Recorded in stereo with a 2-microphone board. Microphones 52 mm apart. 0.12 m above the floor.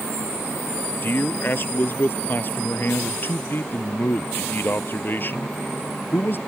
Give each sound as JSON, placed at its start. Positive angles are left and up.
{"t": 1.0, "sound": "a man speaking", "side_deg": 40}